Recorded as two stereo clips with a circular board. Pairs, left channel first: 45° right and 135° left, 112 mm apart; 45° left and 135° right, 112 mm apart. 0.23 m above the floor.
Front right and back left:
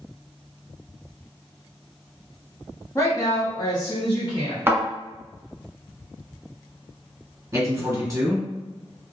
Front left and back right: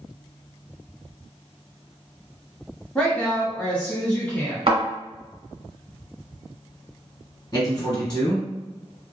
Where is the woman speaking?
25° right, 1.0 m.